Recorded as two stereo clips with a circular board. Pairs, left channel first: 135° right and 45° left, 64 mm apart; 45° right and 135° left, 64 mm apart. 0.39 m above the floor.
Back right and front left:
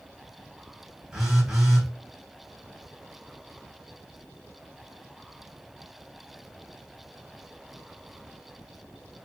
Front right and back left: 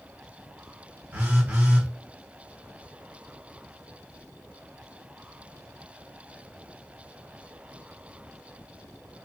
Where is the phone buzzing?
120° left, 1.4 m.